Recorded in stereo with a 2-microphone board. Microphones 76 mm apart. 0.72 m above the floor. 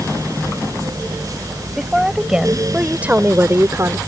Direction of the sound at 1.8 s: 5° right (ahead or behind).